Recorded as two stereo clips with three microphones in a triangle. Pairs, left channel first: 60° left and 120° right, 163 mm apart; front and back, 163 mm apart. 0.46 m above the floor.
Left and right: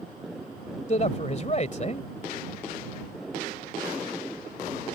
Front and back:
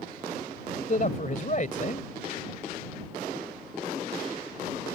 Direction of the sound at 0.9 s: 25° left.